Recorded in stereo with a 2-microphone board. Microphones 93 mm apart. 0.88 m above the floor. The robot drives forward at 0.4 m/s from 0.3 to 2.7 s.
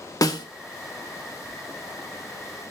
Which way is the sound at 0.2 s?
40° left (ahead or behind).